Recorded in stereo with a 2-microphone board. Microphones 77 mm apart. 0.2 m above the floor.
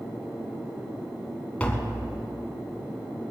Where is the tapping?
15° left (ahead or behind), 1.8 m.